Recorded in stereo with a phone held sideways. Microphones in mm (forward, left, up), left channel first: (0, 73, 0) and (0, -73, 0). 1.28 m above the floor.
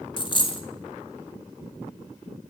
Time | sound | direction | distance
0.2 | a dropped coin | 35° left (ahead or behind) | 0.8 m